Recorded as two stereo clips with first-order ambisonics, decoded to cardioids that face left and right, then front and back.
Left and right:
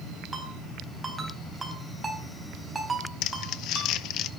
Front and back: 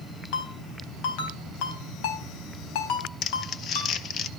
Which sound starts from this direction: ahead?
A ringtone, at 0.3 s.